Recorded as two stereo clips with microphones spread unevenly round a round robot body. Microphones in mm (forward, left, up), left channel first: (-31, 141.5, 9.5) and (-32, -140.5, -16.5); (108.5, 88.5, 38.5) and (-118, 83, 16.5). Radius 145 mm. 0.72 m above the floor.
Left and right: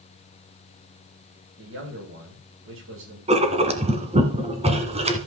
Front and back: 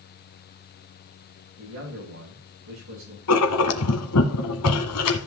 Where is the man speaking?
135° right, 8.5 m.